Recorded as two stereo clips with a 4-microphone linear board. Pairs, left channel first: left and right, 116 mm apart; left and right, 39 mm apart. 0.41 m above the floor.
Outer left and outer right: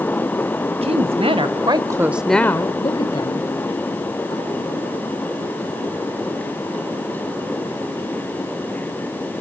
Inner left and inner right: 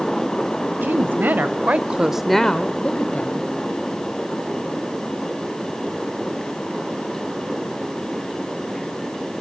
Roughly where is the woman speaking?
Right.